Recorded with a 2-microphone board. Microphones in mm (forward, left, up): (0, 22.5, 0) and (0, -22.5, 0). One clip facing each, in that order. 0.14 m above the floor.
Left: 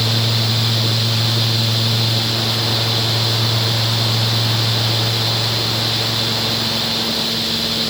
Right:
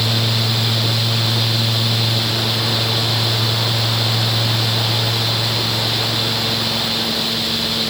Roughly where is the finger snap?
No finger snap in this recording.